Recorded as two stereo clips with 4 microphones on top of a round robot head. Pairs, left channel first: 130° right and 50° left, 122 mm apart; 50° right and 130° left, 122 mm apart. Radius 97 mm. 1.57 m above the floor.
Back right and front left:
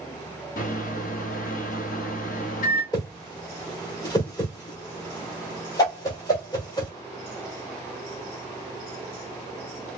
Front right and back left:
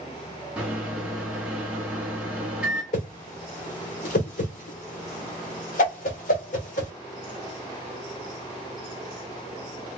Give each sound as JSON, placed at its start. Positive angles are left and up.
{"t": 0.6, "sound": "a microwave", "azimuth_deg": -150, "distance_m": 0.8}
{"t": 2.9, "sound": "a whoosh", "azimuth_deg": -70, "distance_m": 1.0}